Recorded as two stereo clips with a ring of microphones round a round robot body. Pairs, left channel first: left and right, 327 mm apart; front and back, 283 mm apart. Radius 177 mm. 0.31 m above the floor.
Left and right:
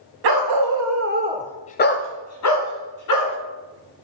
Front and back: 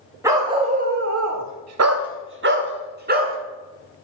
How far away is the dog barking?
About 1.3 m.